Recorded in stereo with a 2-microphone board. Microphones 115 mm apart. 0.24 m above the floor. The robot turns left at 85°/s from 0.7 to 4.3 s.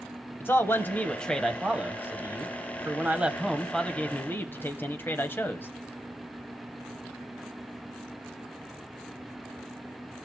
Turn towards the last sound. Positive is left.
turn(degrees=20)  # may be behind; listen again after turning